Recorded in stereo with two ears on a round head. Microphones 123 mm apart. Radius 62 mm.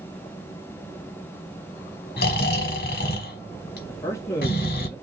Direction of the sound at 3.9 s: 20° left (ahead or behind).